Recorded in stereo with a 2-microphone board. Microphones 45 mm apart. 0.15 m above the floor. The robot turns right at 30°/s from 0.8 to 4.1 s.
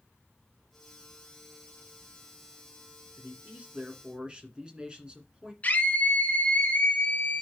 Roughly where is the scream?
Left.